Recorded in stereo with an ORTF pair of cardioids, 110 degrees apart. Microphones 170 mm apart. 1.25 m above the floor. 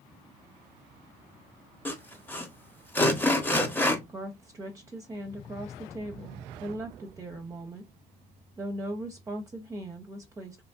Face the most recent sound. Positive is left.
turn(degrees=-20)